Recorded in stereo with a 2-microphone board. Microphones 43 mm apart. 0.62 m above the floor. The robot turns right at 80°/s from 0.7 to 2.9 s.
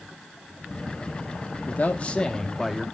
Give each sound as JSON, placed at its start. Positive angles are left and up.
{"t": 1.7, "sound": "a man speaking", "azimuth_deg": 95, "distance_m": 0.8}